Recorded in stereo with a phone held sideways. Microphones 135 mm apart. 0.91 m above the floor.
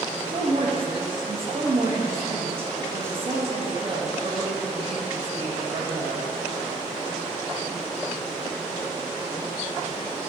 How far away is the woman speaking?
About 1.3 m.